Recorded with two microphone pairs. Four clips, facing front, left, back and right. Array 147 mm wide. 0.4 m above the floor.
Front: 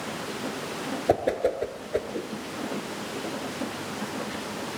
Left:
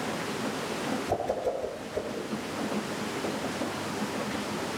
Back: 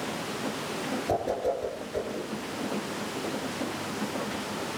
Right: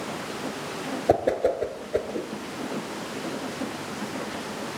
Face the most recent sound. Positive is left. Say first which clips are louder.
# right 10 dB, front 5 dB
turn(degrees=-50)